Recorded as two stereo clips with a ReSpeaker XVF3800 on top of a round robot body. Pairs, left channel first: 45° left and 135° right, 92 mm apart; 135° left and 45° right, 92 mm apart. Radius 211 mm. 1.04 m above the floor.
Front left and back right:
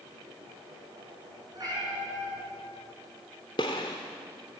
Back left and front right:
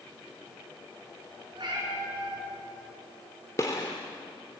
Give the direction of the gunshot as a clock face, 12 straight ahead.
9 o'clock.